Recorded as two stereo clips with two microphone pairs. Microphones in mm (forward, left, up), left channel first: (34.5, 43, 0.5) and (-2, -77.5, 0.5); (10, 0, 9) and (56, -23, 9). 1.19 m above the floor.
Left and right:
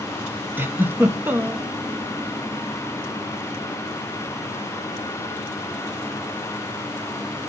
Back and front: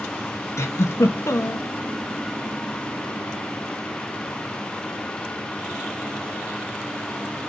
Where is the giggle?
Straight behind, 1.1 m.